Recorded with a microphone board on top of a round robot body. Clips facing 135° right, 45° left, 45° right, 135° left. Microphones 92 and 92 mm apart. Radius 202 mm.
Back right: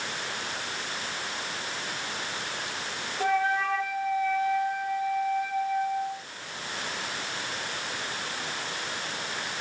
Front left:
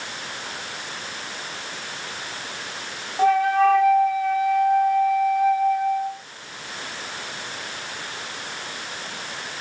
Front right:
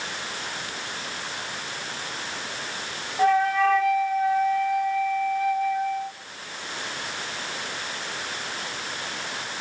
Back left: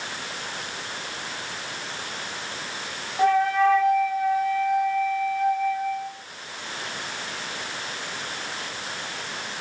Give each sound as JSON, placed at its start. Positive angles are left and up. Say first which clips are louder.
{"t": 3.2, "sound": "a flute", "louder": "front left 9 dB, back left 1 dB", "azimuth_deg": 45, "distance_m": 1.6}